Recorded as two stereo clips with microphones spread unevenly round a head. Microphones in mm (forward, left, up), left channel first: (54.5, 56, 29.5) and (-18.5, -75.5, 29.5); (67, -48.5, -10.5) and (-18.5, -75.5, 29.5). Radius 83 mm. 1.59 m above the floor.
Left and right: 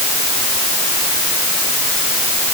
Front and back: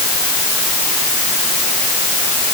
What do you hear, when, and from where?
Only background noise.